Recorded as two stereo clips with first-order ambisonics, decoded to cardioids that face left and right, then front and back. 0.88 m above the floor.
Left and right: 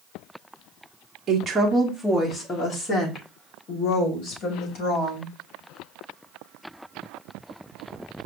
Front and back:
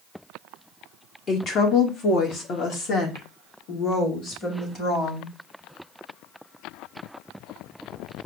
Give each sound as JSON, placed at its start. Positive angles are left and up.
{"t": 1.3, "sound": "a woman speaking", "azimuth_deg": -45, "distance_m": 0.8}